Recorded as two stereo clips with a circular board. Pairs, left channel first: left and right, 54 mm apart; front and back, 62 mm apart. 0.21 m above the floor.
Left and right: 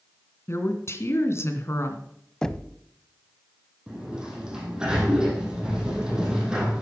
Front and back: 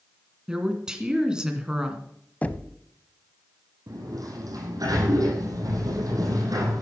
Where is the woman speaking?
105° left, 2 m.